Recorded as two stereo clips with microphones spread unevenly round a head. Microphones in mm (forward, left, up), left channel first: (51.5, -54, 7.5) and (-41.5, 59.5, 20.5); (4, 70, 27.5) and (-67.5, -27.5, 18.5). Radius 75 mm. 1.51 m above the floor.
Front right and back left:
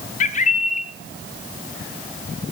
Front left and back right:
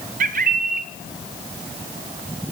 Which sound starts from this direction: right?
A bird, at 0.2 s.